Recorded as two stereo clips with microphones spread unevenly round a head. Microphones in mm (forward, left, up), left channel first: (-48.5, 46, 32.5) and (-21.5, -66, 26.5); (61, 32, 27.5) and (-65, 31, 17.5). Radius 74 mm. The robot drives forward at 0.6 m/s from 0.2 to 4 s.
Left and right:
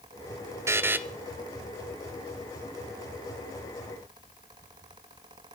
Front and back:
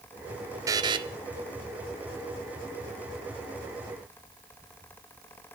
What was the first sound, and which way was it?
A buzzer, 130° right.